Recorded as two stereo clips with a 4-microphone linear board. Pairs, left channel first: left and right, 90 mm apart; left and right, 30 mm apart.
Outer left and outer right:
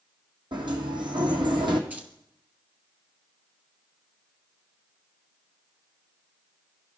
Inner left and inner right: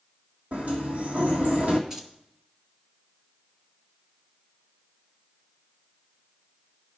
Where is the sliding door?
65° right (ahead or behind), 1.7 m.